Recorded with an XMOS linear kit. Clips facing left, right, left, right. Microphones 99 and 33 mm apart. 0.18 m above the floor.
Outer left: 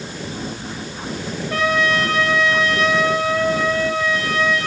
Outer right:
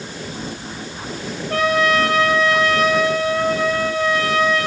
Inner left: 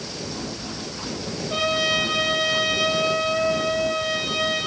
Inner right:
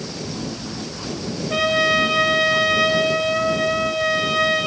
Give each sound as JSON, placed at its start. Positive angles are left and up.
{"t": 1.5, "sound": "a trumpet", "side_deg": -45, "distance_m": 4.5}